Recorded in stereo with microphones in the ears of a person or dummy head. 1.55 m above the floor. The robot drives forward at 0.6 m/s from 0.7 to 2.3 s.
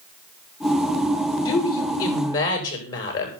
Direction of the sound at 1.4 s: 20° left (ahead or behind).